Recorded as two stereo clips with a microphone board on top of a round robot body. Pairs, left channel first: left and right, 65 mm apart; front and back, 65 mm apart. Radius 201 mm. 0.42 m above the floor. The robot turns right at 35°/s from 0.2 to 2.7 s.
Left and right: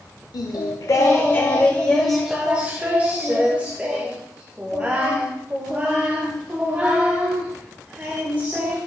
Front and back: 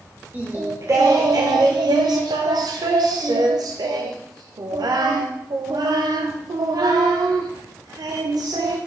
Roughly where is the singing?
Behind left.